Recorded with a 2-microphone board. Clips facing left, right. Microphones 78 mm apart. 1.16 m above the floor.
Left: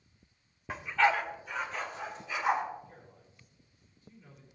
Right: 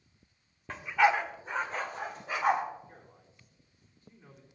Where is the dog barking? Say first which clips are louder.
Right 2 dB; 10° left (ahead or behind), 0.9 m; by 2.6 s 60° right (ahead or behind), 2 m.